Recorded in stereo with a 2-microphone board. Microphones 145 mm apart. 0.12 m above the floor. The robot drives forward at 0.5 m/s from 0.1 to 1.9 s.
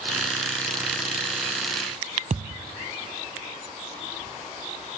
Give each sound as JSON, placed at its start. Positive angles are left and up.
{"t": 2.3, "sound": "a thud", "side_deg": -55, "distance_m": 0.7}